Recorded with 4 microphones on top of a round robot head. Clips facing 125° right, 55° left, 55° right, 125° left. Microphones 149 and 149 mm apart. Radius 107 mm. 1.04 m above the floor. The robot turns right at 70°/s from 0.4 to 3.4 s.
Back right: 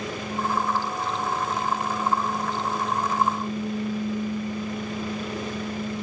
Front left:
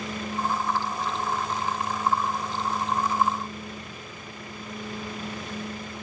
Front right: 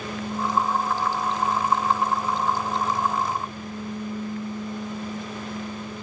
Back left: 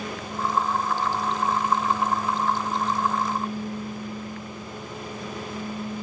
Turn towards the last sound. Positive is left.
No sound to turn to.